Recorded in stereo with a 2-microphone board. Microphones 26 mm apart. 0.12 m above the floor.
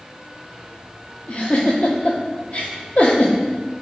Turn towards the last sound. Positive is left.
turn(degrees=45)  # may be behind; listen again after turning